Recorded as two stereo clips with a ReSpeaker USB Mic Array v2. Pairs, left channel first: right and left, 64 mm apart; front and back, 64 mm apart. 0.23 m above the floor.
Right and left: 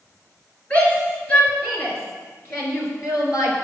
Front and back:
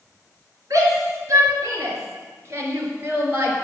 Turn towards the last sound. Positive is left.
turn(degrees=-115)